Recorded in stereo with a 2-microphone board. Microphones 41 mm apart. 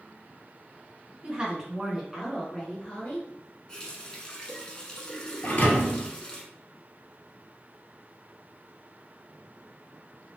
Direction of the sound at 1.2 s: 30° right (ahead or behind).